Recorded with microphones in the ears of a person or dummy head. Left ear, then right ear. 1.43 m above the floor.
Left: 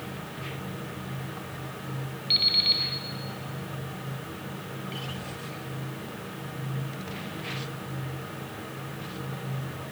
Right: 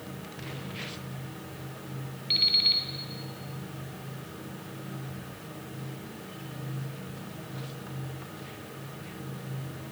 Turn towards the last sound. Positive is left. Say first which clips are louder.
# left 1 dB
turn(degrees=-15)  # may be behind; listen again after turning